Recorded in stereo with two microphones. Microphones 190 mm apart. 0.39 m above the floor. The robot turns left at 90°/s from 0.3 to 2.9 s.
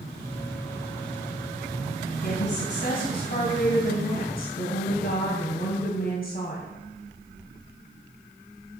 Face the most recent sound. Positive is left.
turn(degrees=60)